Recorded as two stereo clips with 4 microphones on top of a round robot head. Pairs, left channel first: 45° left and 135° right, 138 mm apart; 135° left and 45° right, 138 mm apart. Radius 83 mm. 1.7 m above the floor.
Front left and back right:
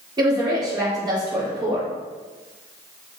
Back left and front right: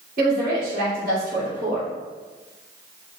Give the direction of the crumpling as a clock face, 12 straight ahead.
I don't hear crumpling.